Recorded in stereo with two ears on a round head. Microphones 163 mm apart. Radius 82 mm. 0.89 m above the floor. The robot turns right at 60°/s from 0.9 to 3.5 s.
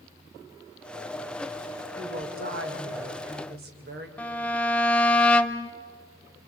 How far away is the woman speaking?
About 3.5 m.